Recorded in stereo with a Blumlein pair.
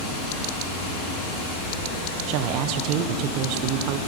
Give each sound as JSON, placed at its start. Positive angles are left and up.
{"t": 0.0, "sound": "running water", "azimuth_deg": 35, "distance_m": 3.0}
{"t": 2.3, "sound": "a woman speaking", "azimuth_deg": -40, "distance_m": 0.6}